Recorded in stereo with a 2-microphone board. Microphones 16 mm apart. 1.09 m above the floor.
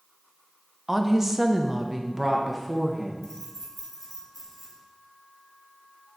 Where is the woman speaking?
20° right (ahead or behind), 0.7 m.